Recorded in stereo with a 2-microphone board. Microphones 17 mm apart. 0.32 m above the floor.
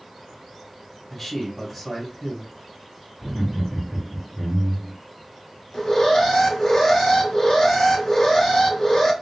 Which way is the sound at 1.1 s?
5° left (ahead or behind).